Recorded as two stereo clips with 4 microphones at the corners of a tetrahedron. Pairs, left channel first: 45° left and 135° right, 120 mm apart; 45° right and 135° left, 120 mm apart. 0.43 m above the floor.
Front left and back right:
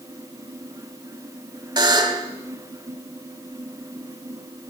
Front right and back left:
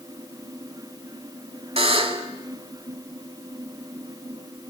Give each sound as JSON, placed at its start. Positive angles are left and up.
{"t": 1.8, "sound": "a buzzer", "azimuth_deg": 170, "distance_m": 0.9}